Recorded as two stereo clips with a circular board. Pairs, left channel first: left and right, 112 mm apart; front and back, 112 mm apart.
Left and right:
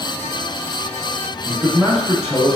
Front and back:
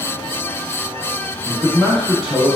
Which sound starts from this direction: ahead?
A man speaking, at 1.4 s.